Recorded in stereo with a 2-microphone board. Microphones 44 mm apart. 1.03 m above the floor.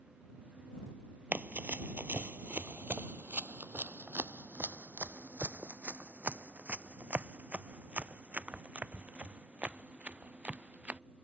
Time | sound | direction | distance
1.3 | running footsteps | 40° right (ahead or behind) | ?